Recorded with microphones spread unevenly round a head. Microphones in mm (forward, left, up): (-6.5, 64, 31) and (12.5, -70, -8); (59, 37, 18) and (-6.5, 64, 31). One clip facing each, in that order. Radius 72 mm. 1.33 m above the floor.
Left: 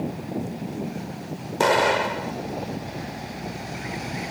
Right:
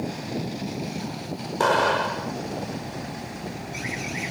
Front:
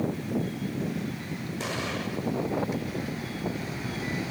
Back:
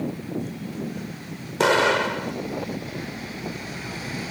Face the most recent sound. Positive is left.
turn(degrees=170)